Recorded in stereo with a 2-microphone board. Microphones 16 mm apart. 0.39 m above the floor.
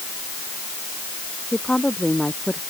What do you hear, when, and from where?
1.5 s a woman speaking: 60° left (ahead or behind); by 2.6 s 65° left (ahead or behind)